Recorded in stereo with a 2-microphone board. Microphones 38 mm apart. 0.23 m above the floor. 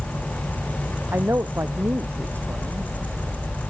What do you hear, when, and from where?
1.1 s a man speaking: 75° right (ahead or behind); by 2.9 s 80° right